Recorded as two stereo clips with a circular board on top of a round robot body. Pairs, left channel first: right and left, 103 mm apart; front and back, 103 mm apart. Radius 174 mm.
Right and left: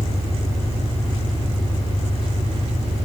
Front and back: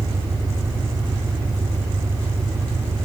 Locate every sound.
0.0 s an engine running: 75° left, 5.5 m